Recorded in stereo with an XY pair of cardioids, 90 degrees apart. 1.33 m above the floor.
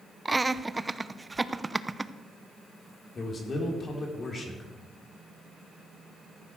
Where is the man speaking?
45° left, 3 m.